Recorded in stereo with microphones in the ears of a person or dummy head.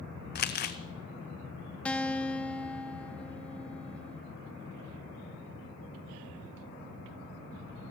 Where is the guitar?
10° left (ahead or behind), 0.7 m.